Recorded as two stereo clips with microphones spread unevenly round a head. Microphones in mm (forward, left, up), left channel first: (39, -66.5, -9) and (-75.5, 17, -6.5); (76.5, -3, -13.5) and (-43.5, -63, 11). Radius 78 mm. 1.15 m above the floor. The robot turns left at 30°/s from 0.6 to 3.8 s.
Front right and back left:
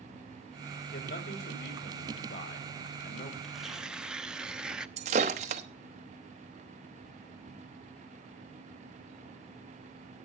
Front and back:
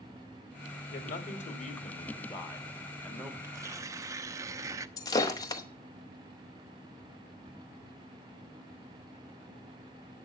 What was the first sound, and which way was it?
A man speaking, 10° left.